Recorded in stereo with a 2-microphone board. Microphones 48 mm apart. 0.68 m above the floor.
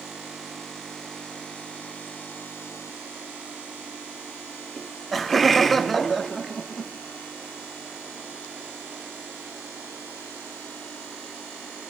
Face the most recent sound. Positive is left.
turn(degrees=0)  # may be behind; listen again after turning